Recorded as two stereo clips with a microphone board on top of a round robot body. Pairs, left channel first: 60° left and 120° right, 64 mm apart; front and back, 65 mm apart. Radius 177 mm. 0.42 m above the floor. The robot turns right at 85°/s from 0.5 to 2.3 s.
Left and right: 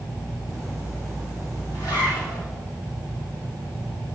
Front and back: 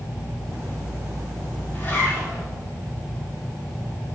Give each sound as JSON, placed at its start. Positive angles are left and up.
{"t": 1.7, "sound": "a zipper", "azimuth_deg": 40, "distance_m": 2.5}